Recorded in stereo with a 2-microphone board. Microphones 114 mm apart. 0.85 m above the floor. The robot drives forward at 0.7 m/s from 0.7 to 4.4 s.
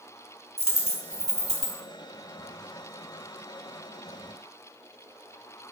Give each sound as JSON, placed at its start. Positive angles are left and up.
{"t": 0.6, "sound": "a dropped coin", "side_deg": 65, "distance_m": 1.3}